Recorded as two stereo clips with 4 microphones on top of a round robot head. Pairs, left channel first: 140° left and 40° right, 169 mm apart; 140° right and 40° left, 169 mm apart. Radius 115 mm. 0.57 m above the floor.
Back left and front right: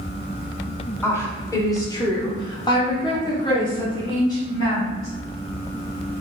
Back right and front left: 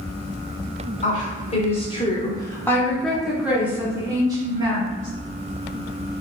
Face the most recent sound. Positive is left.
turn(degrees=80)